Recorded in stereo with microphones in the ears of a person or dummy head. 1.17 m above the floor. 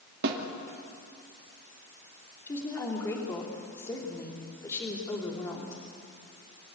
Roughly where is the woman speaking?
Centre.